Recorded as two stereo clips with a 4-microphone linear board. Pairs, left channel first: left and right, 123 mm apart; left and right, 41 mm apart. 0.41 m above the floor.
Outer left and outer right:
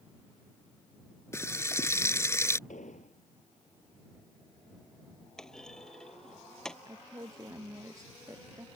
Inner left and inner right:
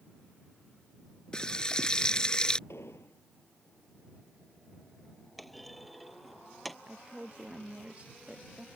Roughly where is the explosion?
Left.